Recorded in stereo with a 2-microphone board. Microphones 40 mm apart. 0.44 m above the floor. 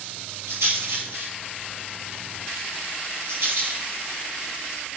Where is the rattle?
85° right, 6 m.